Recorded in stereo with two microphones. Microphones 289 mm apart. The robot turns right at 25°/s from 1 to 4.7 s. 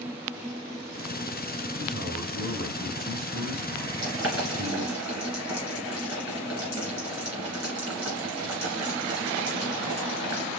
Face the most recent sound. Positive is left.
turn(degrees=-55)  # may be behind; listen again after turning